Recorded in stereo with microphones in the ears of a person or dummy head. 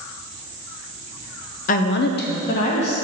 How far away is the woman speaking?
About 0.5 m.